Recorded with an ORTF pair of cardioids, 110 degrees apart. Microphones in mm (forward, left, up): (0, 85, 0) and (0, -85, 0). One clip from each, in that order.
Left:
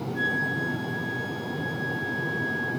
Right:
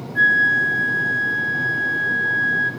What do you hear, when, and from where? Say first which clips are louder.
0.1 s a flute: right 12 dB; 30° right, 2 m